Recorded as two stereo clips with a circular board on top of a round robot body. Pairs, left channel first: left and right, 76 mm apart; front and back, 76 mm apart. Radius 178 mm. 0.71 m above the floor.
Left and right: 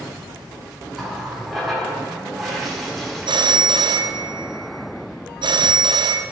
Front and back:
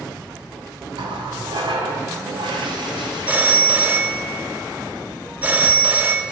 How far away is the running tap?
About 1.7 m.